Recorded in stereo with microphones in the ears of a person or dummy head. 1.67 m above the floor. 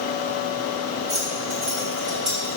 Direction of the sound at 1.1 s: 35° right (ahead or behind).